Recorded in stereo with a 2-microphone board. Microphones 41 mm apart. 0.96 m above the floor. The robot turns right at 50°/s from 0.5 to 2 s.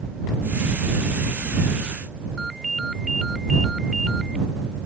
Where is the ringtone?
Centre (ahead or behind).